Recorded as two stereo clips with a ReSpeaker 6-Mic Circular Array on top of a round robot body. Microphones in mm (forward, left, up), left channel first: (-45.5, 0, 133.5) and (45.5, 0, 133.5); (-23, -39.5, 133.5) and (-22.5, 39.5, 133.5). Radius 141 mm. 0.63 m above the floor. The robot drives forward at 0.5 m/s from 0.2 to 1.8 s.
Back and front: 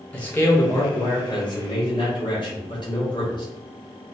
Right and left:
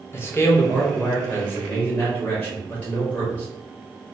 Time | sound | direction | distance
0.1 | a man speaking | 120° right | 0.8 m